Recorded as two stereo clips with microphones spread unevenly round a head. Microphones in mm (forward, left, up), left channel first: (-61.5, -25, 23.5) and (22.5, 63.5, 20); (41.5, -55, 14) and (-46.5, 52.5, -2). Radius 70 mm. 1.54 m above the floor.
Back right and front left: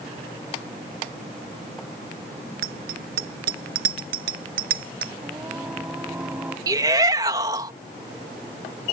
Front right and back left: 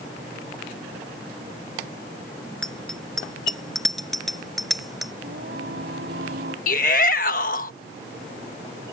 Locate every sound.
2.6 s a bicycle bell: 35° left; by 5.1 s 40° left
5.2 s singing: 125° left
6.7 s a shout: 20° right